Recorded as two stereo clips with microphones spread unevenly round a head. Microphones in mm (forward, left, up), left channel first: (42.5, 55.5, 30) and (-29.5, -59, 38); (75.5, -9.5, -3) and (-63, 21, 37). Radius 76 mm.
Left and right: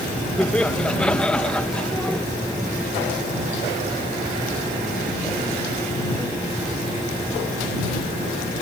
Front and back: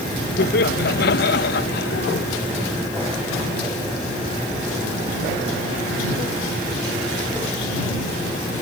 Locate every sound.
0.4 s laughter: 25° right